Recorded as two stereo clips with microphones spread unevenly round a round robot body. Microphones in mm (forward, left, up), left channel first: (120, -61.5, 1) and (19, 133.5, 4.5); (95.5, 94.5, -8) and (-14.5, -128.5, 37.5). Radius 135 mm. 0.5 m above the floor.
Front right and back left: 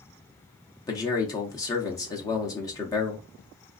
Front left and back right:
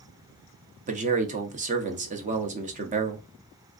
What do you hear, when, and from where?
0.9 s a man speaking: 95° right, 0.6 m